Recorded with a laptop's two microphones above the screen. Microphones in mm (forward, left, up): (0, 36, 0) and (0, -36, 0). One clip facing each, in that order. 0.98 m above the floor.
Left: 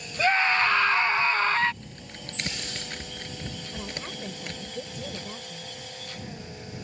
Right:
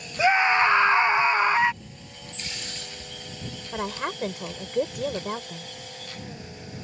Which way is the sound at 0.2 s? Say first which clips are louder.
Right 3 dB; 15° right (ahead or behind).